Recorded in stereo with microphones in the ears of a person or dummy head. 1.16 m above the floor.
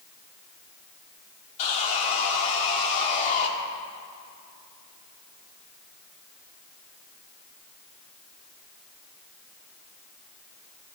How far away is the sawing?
About 1.6 m.